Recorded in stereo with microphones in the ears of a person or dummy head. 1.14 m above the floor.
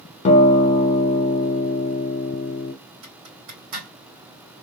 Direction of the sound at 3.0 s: 70° right (ahead or behind).